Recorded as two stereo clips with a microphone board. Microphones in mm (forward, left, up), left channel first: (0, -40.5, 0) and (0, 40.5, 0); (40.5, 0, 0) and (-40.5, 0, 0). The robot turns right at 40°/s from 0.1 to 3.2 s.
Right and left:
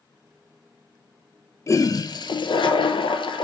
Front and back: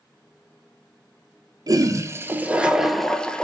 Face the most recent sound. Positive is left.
turn(degrees=-80)